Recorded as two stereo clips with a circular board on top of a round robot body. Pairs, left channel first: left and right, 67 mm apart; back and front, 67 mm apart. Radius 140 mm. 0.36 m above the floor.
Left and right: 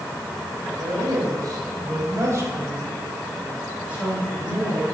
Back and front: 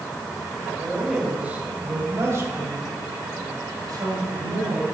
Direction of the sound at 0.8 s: 80° right.